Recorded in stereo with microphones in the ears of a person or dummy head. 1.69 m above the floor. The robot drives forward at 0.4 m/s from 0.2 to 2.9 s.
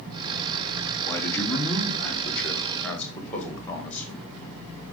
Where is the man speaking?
15° left (ahead or behind), 1.1 m; by 4.2 s 10° left (ahead or behind), 1.9 m.